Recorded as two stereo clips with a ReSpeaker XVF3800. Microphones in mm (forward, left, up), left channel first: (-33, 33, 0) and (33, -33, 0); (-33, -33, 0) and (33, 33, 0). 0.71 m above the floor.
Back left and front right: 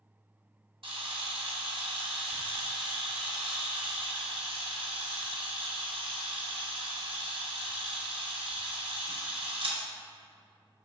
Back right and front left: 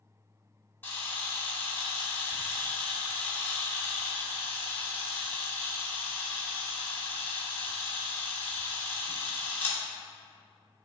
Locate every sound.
0.8 s a camera shutter: 65° right, 1.8 m